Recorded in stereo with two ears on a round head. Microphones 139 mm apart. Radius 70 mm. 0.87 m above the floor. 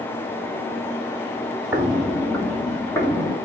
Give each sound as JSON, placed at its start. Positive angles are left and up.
{"t": 1.7, "sound": "footsteps", "side_deg": -15, "distance_m": 0.9}